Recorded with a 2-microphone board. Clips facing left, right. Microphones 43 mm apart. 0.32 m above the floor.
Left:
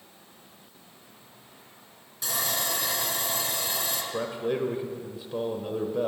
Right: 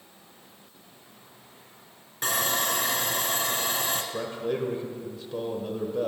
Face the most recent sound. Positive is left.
turn(degrees=15)  # may be behind; listen again after turning